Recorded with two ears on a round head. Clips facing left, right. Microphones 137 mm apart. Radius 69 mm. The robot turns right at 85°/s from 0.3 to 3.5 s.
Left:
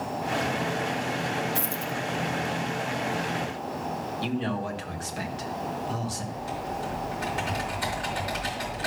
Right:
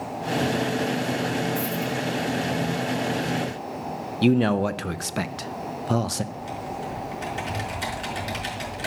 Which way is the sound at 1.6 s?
45° left (ahead or behind).